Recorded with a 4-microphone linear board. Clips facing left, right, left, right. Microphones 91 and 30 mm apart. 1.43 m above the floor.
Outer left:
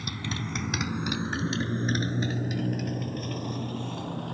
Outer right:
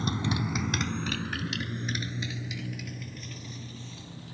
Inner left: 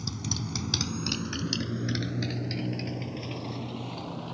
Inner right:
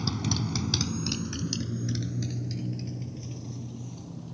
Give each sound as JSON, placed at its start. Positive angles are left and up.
{"t": 0.0, "sound": "a motorcycle", "side_deg": -30}